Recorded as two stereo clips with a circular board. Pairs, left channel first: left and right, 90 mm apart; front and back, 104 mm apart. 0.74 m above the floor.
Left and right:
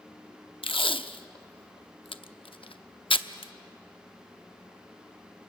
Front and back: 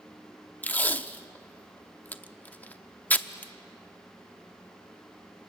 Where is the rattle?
No rattle in this recording.